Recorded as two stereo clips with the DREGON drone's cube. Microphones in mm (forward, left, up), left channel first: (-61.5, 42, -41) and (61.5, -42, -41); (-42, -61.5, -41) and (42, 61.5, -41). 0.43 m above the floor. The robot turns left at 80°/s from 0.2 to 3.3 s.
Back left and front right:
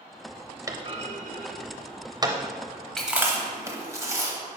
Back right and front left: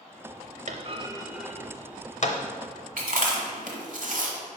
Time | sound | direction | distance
0.7 | a clunk | 30° left | 0.6 m
3.0 | chewing | 60° left | 1.0 m